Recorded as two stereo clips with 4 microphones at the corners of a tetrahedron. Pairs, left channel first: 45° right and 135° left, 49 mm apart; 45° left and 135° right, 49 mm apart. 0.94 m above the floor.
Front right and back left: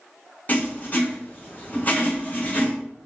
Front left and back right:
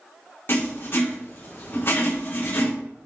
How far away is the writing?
About 3.5 m.